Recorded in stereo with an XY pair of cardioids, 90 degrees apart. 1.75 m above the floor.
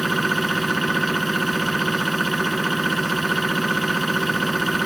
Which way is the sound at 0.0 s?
15° right.